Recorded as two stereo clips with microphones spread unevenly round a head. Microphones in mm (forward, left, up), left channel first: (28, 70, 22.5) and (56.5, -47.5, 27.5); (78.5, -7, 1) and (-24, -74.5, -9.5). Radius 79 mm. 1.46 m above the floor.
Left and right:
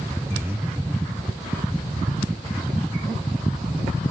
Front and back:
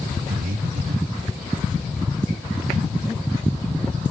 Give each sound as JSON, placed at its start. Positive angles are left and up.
{"t": 0.3, "sound": "breathing", "azimuth_deg": -155, "distance_m": 0.9}